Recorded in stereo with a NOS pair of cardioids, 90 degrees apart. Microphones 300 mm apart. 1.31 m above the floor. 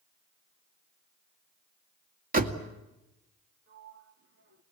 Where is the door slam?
30° right, 2 m.